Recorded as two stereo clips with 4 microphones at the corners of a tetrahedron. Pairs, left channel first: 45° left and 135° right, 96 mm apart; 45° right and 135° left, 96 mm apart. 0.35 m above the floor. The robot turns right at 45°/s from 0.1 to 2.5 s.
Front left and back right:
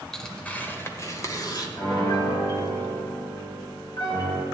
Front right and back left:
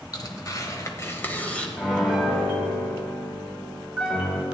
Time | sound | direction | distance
0.1 | tearing paper | 40° right | 1.1 m
1.8 | a piano | 40° left | 2.0 m